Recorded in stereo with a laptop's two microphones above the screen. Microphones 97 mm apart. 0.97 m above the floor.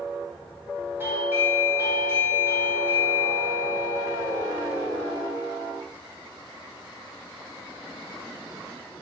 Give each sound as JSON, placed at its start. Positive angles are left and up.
{"t": 1.0, "sound": "a doorbell", "side_deg": -25, "distance_m": 1.8}